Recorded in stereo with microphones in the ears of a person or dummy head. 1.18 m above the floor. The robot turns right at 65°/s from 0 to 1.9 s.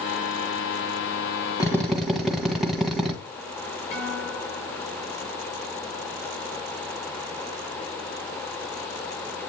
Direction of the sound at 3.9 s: 65° left (ahead or behind).